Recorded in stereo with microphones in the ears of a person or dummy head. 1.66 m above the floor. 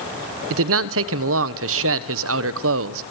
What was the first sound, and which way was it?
A man speaking, 75° right (ahead or behind).